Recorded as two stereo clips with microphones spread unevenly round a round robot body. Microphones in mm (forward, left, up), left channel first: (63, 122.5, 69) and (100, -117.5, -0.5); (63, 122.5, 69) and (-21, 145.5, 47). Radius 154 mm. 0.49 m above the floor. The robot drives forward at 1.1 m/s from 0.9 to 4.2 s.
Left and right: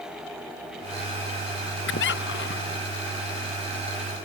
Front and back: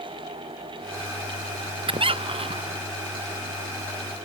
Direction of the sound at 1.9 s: 155° left.